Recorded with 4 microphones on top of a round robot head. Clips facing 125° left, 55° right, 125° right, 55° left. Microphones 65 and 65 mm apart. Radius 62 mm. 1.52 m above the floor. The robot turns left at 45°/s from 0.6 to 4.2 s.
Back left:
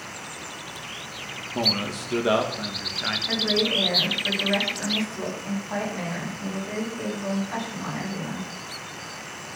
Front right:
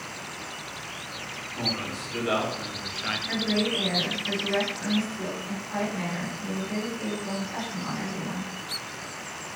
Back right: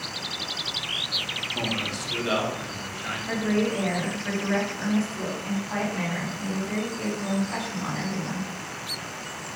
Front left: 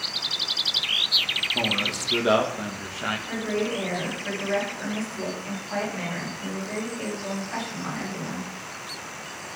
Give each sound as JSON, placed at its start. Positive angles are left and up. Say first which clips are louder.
{"t": 1.5, "sound": "a man speaking", "louder": "back left 5 dB, front left 2 dB", "azimuth_deg": 130, "distance_m": 2.0}
{"t": 3.3, "sound": "a woman speaking", "louder": "back left 2 dB, back right 5 dB", "azimuth_deg": -165, "distance_m": 7.5}